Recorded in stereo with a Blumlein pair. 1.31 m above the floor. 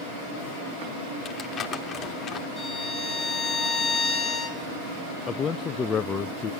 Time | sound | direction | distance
1.2 | crumpling | 20° left | 2.5 m
2.6 | a violin | 15° left | 3 m
5.3 | a man speaking | 20° left | 0.6 m